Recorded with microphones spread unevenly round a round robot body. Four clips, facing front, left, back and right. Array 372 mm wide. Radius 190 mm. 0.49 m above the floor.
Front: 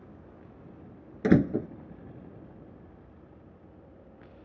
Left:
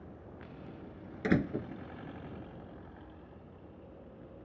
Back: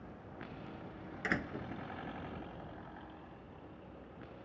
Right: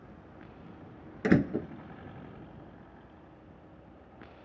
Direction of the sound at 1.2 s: 20° right.